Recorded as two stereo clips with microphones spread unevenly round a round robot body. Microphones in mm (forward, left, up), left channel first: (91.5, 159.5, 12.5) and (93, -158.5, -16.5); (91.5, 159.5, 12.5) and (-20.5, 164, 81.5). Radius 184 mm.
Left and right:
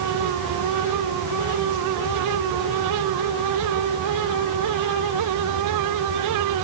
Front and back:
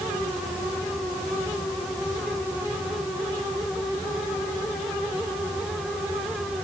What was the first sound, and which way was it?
Only background noise.